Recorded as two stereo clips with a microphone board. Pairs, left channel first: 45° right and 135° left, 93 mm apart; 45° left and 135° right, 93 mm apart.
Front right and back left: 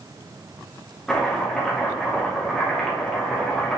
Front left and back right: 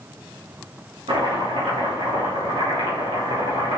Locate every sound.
1.1 s chopping: 130° right, 2.5 m